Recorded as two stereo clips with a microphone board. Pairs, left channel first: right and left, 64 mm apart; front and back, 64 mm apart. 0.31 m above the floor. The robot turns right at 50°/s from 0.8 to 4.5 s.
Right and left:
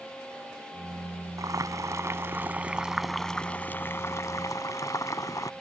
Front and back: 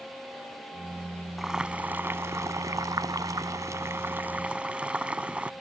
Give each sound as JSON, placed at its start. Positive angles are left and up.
{"t": 1.4, "sound": "boiling", "azimuth_deg": 95}